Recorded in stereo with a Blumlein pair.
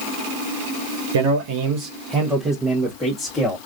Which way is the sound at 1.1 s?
60° right.